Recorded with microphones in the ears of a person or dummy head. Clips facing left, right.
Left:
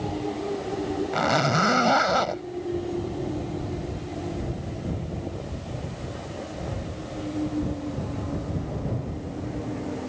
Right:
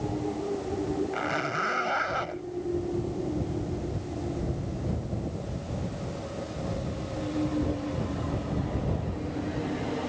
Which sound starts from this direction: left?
A zipper, at 1.1 s.